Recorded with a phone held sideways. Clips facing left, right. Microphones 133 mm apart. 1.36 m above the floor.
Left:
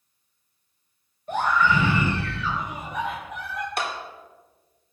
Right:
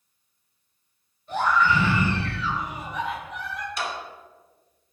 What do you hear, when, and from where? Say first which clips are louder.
1.3 s a scream: even; 50° left (ahead or behind), 6 m
3.8 s a clap: left 2 dB; 60° left (ahead or behind), 3 m